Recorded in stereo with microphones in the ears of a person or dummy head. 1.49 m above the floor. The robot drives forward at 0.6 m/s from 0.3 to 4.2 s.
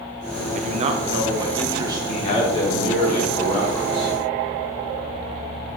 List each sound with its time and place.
0.5 s a man speaking: 50° right (ahead or behind), 0.7 m; by 2.5 s 20° right (ahead or behind), 1.8 m
2.1 s a man speaking: 45° left (ahead or behind), 1.0 m; by 4.1 s 20° left (ahead or behind), 2 m